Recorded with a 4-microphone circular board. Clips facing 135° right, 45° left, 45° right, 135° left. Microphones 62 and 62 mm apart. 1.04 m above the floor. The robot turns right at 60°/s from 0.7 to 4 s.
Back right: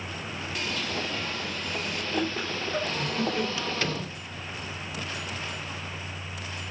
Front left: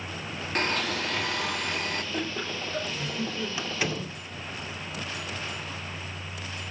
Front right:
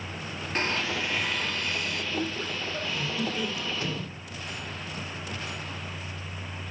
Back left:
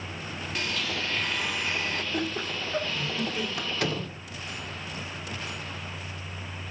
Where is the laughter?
135° left, 5.5 m; by 3.5 s 150° right, 5.5 m.